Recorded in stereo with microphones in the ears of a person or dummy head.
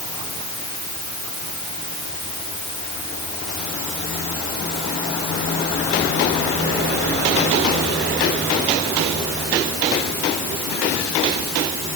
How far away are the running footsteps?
I don't hear running footsteps.